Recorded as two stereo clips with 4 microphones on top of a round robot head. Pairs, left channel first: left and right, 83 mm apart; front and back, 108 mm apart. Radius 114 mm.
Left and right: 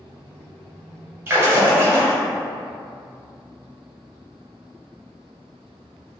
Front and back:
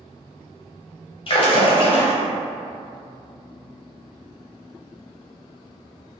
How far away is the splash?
About 0.6 m.